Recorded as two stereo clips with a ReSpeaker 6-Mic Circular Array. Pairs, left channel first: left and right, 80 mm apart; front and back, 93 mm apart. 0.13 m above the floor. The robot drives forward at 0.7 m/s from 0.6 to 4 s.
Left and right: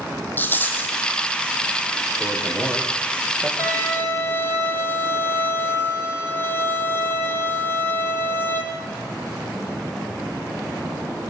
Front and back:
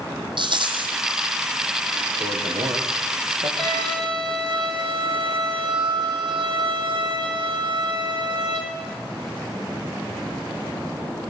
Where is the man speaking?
165° left, 4.5 m; by 3.5 s 170° left, 5.5 m.